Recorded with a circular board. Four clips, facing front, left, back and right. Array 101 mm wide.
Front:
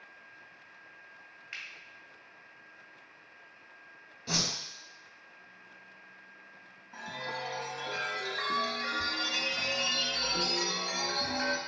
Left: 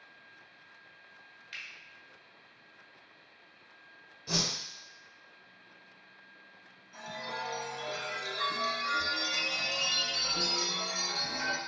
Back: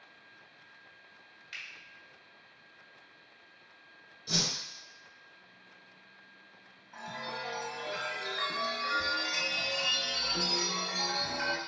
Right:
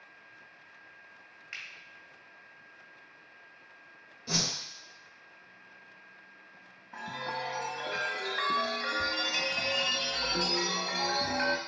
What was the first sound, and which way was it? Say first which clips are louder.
A finger snap: right 1 dB, front 1 dB; 55° right.